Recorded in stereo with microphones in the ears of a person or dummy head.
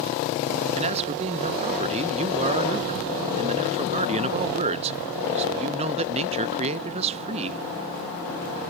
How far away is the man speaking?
About 0.7 m.